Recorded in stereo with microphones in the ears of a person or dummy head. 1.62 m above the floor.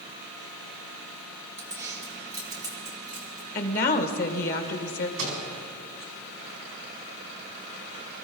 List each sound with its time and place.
1.6 s keys jangling: 15° right (ahead or behind), 1.6 m; by 3.5 s 20° right (ahead or behind), 3 m
3.5 s a woman speaking: 55° left (ahead or behind), 1.7 m
5.2 s a microwave: 60° right (ahead or behind), 4.5 m